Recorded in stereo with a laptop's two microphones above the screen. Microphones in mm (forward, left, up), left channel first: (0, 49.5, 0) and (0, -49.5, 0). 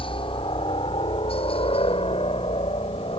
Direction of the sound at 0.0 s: 60° left (ahead or behind).